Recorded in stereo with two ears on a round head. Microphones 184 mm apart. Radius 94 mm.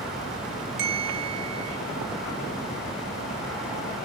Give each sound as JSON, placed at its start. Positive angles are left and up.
{"t": 0.8, "sound": "a bell", "side_deg": -50, "distance_m": 1.2}